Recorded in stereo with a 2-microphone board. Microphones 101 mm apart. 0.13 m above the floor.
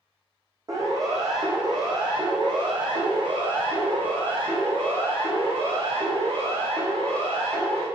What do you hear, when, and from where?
0.7 s a siren: 35° right (ahead or behind), 5.5 m; by 7.8 s 65° right (ahead or behind), 10 m